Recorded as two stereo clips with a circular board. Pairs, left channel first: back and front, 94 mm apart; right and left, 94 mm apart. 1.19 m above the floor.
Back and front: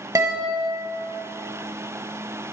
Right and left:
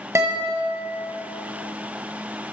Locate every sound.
0.1 s a guitar: 40° left, 1.5 m